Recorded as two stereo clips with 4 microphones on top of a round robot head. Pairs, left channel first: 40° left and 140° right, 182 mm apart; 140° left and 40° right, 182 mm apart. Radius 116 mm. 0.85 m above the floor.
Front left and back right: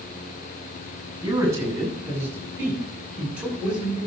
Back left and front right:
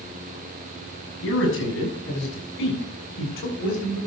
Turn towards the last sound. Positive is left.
turn(degrees=135)